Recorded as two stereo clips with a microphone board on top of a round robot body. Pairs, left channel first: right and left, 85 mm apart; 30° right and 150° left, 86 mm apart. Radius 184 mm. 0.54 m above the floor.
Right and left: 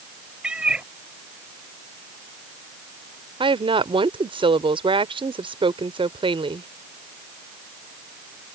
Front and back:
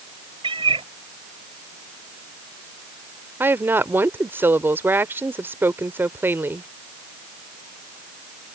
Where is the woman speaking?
85° left.